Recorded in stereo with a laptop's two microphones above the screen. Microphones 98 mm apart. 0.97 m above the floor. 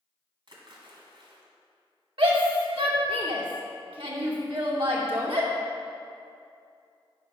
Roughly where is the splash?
Right.